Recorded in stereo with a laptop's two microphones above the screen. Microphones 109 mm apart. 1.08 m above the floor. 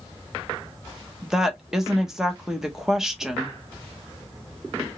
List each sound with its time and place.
1.2 s a woman speaking: 5° right (ahead or behind), 1.0 m